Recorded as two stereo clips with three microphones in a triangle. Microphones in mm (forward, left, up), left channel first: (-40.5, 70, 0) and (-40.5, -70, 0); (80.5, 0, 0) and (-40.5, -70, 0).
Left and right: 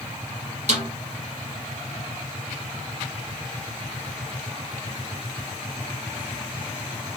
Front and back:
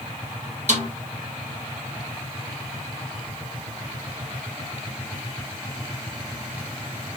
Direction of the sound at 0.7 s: 120° right.